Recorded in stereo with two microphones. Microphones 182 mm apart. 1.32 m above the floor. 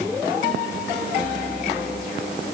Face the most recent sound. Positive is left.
No sound to turn to.